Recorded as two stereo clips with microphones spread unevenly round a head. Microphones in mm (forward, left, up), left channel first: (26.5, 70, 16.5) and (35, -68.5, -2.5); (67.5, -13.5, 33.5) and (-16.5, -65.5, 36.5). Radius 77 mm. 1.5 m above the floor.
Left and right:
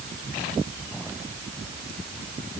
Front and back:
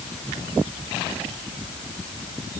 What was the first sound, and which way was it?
Only background noise.